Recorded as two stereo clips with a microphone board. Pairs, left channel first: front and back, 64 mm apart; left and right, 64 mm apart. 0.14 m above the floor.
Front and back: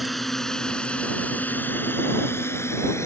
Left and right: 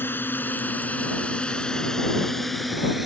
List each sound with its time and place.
0.0 s a drone: 90° left; by 3.1 s 5° right